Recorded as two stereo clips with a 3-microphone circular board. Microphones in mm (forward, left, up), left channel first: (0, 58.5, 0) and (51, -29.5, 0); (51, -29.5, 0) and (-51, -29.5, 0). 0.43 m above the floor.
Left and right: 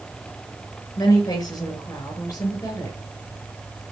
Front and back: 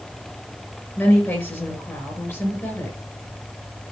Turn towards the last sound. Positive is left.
turn(degrees=65)